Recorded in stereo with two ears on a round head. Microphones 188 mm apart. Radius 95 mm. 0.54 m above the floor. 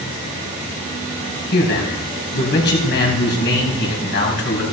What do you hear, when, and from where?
1.5 s a man speaking: 50° left (ahead or behind), 3 m